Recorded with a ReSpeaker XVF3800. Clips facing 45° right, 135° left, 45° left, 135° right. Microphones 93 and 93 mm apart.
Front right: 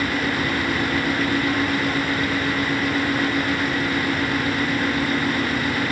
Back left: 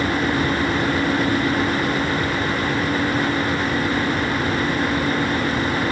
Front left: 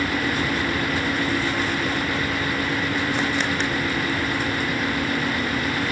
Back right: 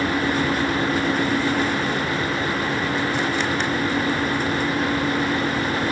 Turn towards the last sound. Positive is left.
No sound to turn to.